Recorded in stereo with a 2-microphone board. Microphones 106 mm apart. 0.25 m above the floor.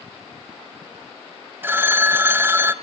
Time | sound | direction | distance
1.6 | a phone ringing | 20° right (ahead or behind) | 0.6 m